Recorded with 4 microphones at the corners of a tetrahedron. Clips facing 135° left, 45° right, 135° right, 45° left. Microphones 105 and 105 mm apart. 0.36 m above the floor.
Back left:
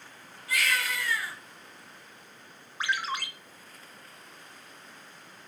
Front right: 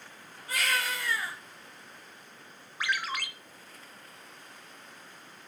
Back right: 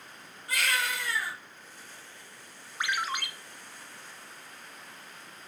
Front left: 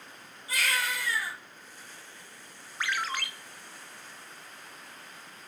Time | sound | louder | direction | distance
0.5 | a baby crying | back left 1 dB, even | 100° right | 2.5 m
2.8 | a ringtone | back left 1 dB, back right 1 dB | 165° left | 0.5 m